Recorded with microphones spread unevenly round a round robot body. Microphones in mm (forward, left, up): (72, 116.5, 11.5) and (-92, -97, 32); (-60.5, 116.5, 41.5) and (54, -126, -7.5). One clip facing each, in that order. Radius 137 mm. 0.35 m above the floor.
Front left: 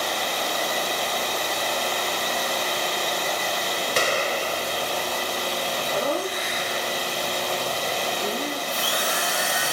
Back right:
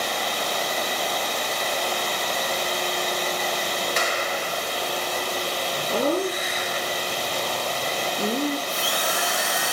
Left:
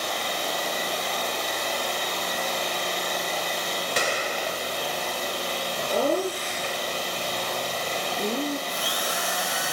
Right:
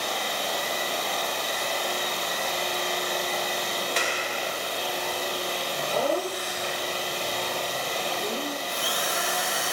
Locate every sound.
4.0 s a gunshot: 80° left, 1.1 m
5.9 s laughter: 175° right, 5.5 m
8.7 s a drill: 130° right, 8 m